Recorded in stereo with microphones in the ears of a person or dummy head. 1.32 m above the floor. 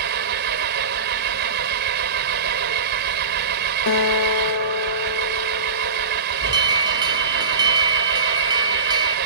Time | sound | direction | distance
0.0 | an engine running | 55° right (ahead or behind) | ?
3.9 | a guitar | 75° left (ahead or behind) | ?
6.4 | an alarm | 25° right (ahead or behind) | ?